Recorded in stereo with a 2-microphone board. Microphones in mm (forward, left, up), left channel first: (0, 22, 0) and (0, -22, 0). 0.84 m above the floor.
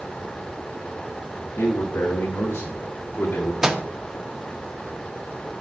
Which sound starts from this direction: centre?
A microwave, at 3.6 s.